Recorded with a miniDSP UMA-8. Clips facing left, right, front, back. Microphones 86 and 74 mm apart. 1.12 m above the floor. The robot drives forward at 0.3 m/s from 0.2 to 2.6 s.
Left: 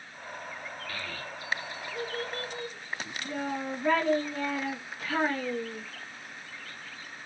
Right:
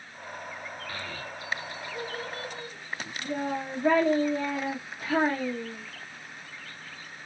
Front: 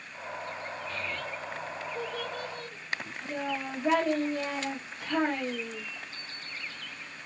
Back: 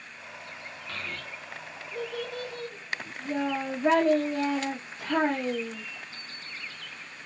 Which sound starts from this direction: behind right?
A child speaking, at 0.9 s.